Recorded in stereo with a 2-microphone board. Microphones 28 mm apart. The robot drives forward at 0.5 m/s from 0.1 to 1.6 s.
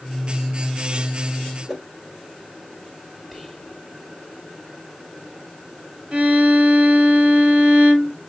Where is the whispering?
Centre (ahead or behind), 2.5 m.